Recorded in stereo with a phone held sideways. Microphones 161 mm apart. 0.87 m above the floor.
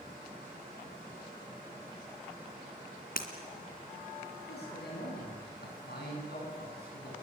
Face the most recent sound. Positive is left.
turn(degrees=85)